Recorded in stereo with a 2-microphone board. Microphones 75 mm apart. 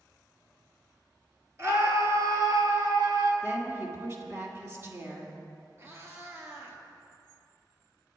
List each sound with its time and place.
1.6 s a scream: 35° right (ahead or behind), 2.5 m; by 3.3 s 65° right (ahead or behind), 2.5 m
3.4 s a woman speaking: 35° right (ahead or behind), 2 m
5.8 s a cat meowing: 35° right (ahead or behind), 1.7 m